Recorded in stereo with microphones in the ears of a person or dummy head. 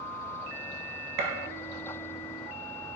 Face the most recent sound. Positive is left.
turn(degrees=-45)  # may be behind; listen again after turning